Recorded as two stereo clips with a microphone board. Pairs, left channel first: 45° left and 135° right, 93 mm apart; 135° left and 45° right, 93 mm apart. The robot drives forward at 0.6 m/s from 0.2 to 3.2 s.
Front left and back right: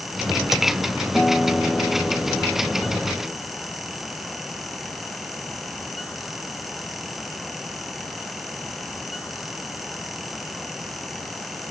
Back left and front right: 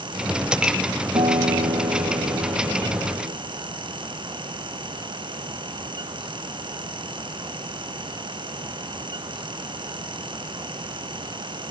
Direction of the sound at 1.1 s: 35° right.